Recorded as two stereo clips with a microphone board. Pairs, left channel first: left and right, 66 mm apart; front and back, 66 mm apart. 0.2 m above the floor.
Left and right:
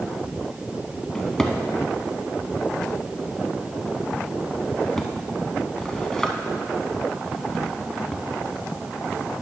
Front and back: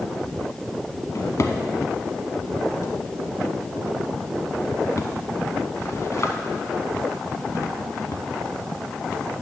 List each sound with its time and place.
1.1 s a drawer: 10° left, 0.8 m